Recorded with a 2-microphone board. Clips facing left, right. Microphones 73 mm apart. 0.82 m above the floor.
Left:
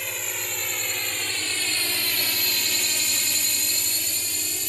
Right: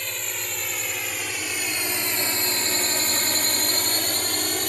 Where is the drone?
5° left (ahead or behind); by 4.7 s 60° right (ahead or behind).